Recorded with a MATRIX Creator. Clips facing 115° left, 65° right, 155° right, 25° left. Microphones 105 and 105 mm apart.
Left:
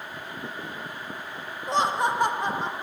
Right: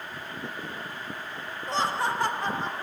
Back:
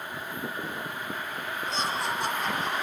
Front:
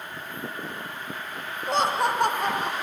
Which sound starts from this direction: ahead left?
Laughter, at 1.7 s.